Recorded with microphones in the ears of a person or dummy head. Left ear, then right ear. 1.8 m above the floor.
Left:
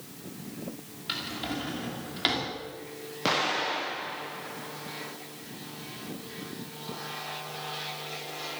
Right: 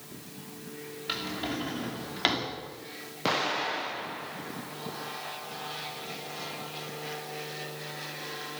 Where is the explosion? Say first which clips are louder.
Left 1 dB; centre (ahead or behind), 1.7 m.